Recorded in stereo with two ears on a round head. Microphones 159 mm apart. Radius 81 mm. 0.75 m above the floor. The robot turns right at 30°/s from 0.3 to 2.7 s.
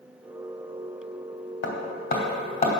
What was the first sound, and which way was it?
Hammering, 70° left (ahead or behind).